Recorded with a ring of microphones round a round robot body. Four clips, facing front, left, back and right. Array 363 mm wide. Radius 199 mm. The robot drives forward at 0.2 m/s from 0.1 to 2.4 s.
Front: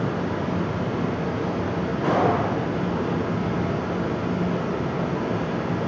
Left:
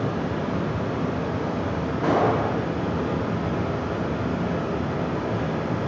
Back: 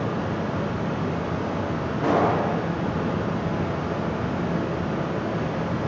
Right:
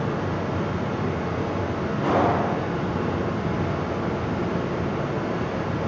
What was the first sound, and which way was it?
Running water, 90° left.